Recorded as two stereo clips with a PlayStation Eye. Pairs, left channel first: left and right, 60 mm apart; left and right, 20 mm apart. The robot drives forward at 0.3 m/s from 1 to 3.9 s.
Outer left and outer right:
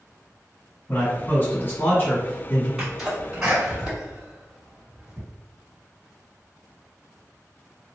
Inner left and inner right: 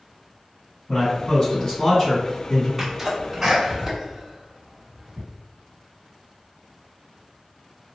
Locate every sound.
0.9 s a man speaking: 35° left (ahead or behind), 1.9 m
2.8 s a sneeze: 10° right (ahead or behind), 1.4 m